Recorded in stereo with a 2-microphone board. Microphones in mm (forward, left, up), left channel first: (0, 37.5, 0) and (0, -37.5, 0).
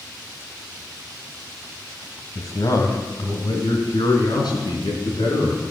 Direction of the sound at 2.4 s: 50° left (ahead or behind).